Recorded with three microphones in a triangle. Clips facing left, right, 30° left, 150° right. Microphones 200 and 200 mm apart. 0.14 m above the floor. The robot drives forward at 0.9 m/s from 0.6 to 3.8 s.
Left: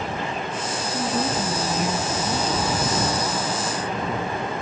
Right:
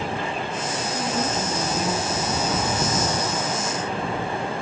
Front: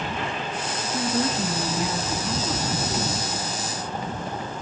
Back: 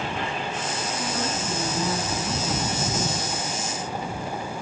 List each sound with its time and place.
0.9 s a woman speaking: 5° left, 1.8 m; by 3.2 s 175° left, 1.7 m